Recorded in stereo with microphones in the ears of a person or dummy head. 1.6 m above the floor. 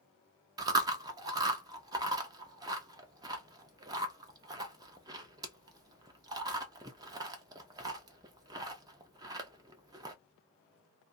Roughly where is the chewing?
Centre.